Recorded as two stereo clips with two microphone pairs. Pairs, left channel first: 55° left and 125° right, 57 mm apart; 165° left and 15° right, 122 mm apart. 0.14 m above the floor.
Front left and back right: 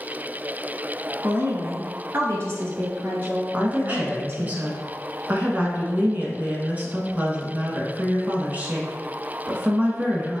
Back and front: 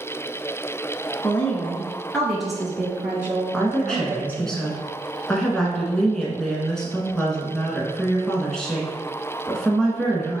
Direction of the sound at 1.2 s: 130° right.